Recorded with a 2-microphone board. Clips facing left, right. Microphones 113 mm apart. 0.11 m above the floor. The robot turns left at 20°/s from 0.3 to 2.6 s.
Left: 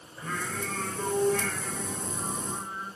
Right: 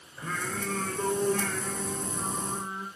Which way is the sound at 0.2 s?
10° right.